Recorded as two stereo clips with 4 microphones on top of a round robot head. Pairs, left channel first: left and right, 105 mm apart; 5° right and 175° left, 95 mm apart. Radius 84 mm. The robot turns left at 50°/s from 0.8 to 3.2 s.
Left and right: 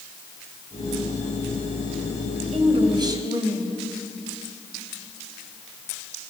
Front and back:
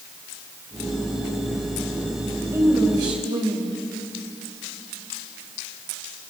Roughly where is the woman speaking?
Right.